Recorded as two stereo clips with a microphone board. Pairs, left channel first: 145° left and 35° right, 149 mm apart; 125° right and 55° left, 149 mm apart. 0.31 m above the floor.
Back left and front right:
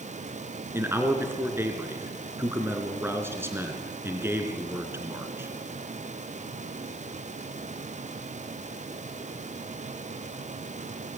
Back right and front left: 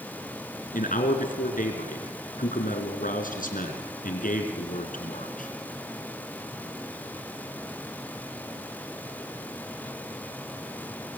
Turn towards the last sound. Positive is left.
turn(degrees=-110)